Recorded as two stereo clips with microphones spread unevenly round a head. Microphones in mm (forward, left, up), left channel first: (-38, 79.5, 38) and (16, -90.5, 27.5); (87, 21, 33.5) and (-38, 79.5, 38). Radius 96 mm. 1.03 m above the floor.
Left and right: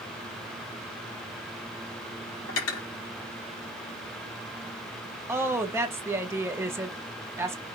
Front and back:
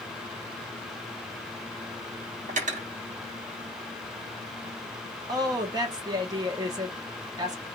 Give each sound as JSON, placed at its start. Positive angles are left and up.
{"t": 2.5, "sound": "cutlery clinking", "azimuth_deg": 125, "distance_m": 1.1}
{"t": 5.3, "sound": "a woman speaking", "azimuth_deg": -145, "distance_m": 0.9}